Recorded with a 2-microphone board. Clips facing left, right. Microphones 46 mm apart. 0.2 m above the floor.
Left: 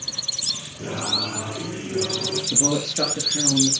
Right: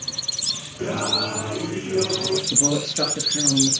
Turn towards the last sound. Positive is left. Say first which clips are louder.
# even
turn(degrees=-5)  # may be behind; listen again after turning